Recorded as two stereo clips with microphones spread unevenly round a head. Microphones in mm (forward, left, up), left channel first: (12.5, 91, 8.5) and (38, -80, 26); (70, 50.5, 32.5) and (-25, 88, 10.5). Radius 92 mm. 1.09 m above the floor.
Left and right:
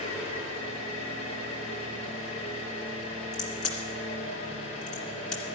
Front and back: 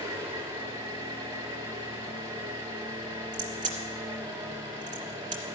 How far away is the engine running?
About 3 m.